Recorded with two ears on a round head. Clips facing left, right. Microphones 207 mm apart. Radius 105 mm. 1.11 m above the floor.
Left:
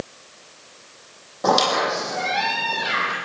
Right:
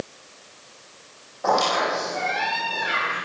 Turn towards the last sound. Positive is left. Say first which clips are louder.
# left 2 dB
turn(degrees=50)  # may be behind; listen again after turning